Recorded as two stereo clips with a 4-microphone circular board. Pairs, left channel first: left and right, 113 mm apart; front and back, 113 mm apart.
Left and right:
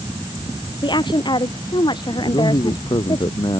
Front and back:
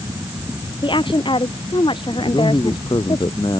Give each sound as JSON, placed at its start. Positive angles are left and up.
{"t": 0.8, "sound": "a woman speaking", "azimuth_deg": 40}
{"t": 2.2, "sound": "a man speaking", "azimuth_deg": 45}